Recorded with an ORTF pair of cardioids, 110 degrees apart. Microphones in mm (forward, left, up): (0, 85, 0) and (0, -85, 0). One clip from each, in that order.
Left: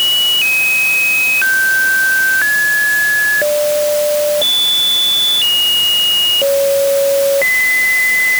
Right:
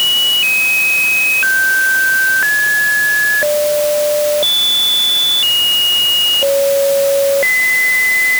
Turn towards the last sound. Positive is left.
No sound to turn to.